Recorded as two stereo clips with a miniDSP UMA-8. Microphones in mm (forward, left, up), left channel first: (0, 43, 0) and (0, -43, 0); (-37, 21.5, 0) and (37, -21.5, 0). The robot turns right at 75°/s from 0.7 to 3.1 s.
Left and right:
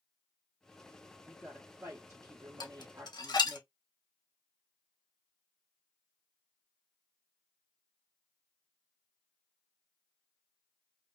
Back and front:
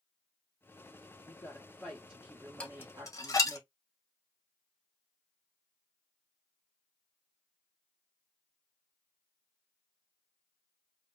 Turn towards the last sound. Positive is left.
turn(degrees=110)